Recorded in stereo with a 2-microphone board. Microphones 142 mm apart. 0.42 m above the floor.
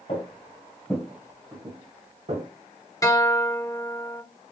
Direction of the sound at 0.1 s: 45° left (ahead or behind).